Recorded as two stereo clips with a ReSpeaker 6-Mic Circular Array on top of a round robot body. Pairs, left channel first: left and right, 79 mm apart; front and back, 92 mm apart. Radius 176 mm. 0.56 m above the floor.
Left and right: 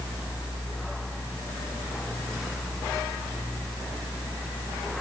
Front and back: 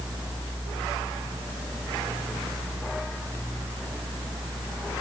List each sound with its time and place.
Only background noise.